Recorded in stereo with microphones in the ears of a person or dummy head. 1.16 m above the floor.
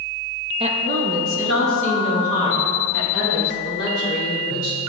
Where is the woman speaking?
30° right (ahead or behind), 0.6 m; by 4.8 s 75° right (ahead or behind), 3 m.